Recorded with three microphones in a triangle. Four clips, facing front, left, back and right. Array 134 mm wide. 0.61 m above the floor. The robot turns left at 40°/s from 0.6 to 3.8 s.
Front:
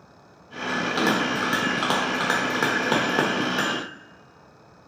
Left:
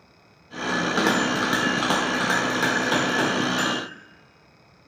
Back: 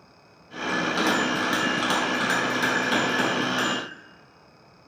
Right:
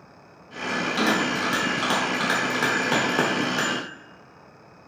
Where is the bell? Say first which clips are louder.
Left 1 dB, front 1 dB; 75° left, 1.1 m; by 3.8 s 45° right, 1.1 m.